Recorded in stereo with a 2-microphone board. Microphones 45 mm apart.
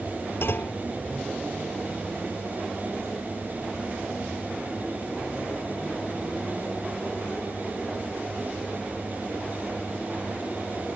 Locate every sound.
0.4 s a clunk: 60° left (ahead or behind)